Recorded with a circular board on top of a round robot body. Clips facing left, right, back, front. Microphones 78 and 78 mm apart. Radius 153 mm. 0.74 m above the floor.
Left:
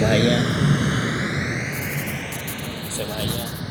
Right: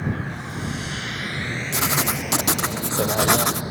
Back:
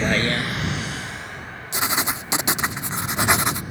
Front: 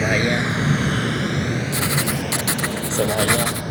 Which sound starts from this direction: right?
Writing, at 1.7 s.